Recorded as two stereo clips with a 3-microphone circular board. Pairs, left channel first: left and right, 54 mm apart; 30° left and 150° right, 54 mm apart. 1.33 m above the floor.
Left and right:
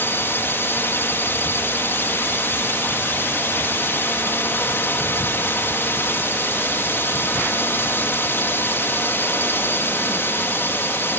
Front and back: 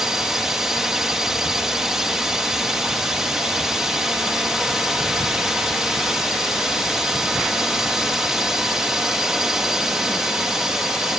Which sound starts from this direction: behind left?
A drone, at 0.0 s.